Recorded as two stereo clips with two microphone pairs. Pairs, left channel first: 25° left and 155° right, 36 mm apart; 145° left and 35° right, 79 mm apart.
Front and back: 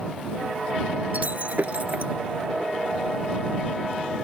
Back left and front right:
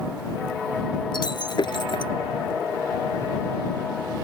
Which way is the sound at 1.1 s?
165° left.